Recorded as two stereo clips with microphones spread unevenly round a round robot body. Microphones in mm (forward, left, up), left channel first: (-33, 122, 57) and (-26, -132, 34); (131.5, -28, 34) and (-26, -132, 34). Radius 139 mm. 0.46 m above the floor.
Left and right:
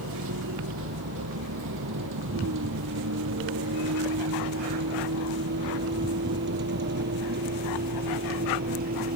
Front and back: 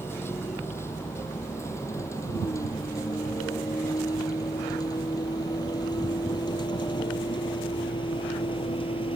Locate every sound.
0.0 s a vehicle: 45° right; by 9.2 s 30° right